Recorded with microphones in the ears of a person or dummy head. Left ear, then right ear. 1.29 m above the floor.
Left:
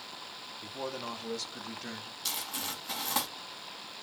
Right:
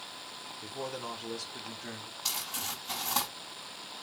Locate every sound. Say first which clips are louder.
0.6 s a man speaking: left 1 dB; 15° right (ahead or behind), 0.7 m; by 2.1 s 25° left (ahead or behind), 1.4 m
2.2 s crumpling: right 1 dB; 15° left (ahead or behind), 2 m